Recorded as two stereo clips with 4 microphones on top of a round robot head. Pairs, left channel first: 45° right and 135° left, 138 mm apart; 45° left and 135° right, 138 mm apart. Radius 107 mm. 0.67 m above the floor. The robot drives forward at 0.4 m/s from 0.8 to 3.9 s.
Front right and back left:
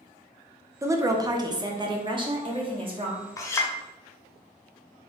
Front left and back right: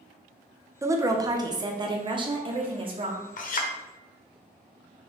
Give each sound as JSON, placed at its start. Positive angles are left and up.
{"t": 0.8, "sound": "a woman speaking", "azimuth_deg": 180, "distance_m": 0.7}
{"t": 3.4, "sound": "a clink", "azimuth_deg": 20, "distance_m": 0.8}